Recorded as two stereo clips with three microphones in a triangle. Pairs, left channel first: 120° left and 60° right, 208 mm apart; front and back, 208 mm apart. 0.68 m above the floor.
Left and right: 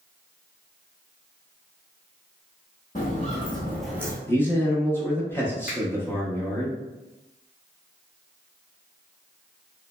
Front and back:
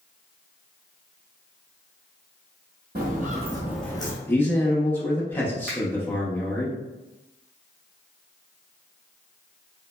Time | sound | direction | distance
3.0 | footsteps | 160° left | 1.1 m
4.3 | a man speaking | 65° left | 0.7 m
5.7 | a finger snap | 90° left | 1.0 m